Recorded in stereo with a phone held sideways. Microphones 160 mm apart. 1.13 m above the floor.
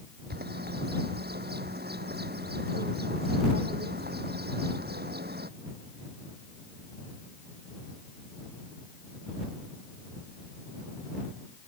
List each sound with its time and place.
0.3 s a bird: 85° right